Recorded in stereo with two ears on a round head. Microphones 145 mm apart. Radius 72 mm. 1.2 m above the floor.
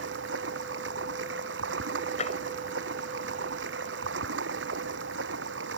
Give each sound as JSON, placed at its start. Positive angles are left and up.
{"t": 0.0, "sound": "running water", "side_deg": -85}
{"t": 2.2, "sound": "tapping", "side_deg": 45}